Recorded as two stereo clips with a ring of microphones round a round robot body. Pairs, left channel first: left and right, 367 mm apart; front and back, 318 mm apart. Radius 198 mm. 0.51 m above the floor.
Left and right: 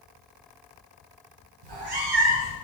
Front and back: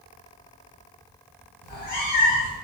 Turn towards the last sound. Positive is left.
turn(degrees=-65)